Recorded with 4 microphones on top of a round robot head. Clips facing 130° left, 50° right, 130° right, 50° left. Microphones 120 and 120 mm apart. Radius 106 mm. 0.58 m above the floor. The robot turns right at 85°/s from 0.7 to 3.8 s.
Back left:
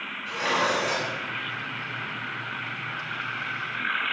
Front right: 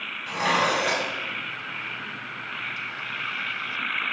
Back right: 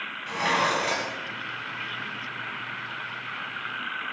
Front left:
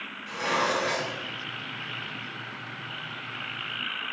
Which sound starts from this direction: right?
Dishes clattering, at 0.3 s.